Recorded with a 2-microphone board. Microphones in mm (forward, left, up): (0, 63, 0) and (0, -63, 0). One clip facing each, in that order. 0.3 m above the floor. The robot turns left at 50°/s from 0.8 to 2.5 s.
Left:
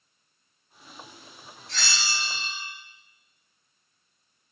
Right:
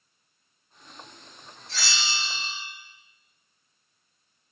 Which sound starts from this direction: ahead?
A bell, at 1.7 s.